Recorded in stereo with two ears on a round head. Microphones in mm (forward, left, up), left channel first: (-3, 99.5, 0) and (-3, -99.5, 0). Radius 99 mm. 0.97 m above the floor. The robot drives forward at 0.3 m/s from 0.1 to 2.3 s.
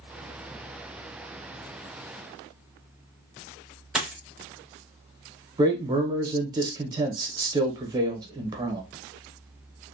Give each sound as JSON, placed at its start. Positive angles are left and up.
{"t": 4.0, "sound": "a dropped coin", "side_deg": -5, "distance_m": 0.8}
{"t": 5.6, "sound": "a man speaking", "side_deg": -20, "distance_m": 0.7}